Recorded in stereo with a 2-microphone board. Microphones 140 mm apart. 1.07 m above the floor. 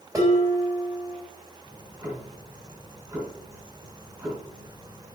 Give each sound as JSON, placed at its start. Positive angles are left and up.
{"t": 0.1, "sound": "dishes clattering", "side_deg": -25, "distance_m": 3.5}
{"t": 1.6, "sound": "ticking", "side_deg": -25, "distance_m": 3.0}